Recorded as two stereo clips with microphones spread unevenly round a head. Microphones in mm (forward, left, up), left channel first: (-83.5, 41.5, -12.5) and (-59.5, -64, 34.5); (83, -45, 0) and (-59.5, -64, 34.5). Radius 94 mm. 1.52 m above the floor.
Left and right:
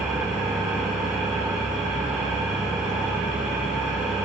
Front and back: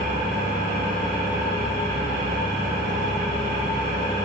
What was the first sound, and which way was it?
An engine running, 160° right.